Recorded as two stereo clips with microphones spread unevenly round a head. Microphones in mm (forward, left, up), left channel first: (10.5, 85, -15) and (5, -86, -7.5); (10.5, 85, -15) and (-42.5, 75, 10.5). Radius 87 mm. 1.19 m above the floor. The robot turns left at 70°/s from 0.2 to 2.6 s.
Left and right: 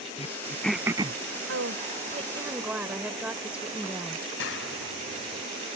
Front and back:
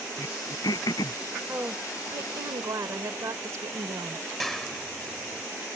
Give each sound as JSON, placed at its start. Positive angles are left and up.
{"t": 0.2, "sound": "throat clearing", "azimuth_deg": 35}
{"t": 1.5, "sound": "a woman speaking", "azimuth_deg": -95}
{"t": 4.4, "sound": "a clap", "azimuth_deg": 100}